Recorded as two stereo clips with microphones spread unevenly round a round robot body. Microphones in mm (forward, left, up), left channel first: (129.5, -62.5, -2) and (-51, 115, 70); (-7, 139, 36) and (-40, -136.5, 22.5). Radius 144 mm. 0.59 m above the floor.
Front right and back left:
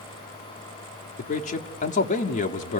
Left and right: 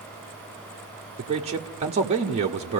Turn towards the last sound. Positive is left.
turn(degrees=-45)